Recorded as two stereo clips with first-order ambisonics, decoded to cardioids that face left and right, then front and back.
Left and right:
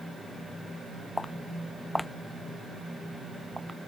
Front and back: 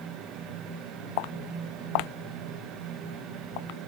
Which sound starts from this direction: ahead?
Footsteps, at 1.2 s.